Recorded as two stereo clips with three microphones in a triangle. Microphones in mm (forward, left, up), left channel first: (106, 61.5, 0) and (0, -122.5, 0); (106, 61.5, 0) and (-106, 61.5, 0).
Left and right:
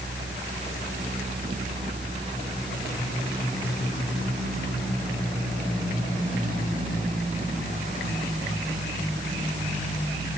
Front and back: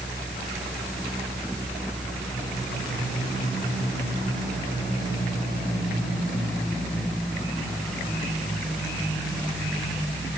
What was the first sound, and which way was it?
Only background noise.